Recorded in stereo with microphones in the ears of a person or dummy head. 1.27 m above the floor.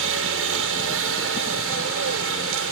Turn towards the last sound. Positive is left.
turn(degrees=-70)  # may be behind; listen again after turning